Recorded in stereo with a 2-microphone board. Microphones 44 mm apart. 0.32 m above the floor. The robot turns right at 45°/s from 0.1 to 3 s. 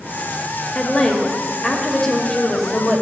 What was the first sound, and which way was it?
A woman speaking, 5° left (ahead or behind).